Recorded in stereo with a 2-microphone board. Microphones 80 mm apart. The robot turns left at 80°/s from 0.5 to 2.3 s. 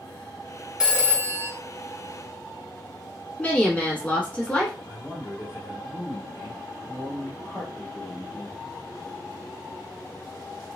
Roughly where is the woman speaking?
Centre.